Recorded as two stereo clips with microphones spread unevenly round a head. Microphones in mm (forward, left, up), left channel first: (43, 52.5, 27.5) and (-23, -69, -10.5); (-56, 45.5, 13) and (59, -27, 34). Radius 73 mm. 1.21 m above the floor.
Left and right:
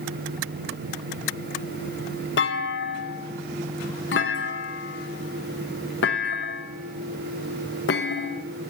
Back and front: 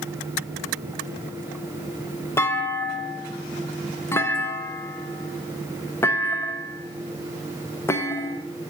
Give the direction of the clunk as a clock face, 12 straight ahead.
9 o'clock.